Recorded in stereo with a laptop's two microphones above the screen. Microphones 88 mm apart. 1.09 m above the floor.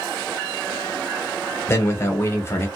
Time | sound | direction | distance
1.7 | a man speaking | 30° left (ahead or behind) | 0.8 m